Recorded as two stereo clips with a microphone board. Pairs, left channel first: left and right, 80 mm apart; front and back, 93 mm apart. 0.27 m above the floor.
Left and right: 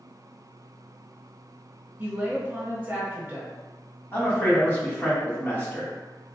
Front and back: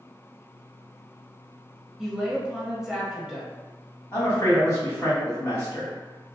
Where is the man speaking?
40° left, 1.6 m.